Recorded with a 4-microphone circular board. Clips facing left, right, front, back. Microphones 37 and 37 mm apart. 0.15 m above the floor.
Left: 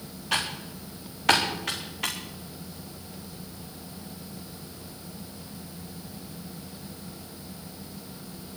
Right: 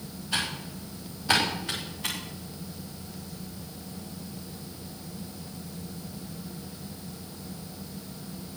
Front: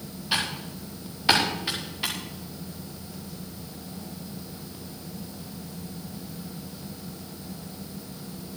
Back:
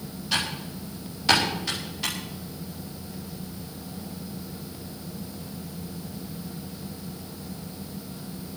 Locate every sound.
0.3 s typing on a keyboard: 75° left, 7.5 m